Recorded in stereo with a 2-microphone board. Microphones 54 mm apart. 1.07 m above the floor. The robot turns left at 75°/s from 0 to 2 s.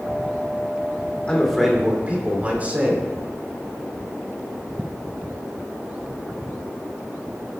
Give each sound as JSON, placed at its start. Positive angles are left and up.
{"t": 1.3, "sound": "a man speaking", "azimuth_deg": 25, "distance_m": 2.5}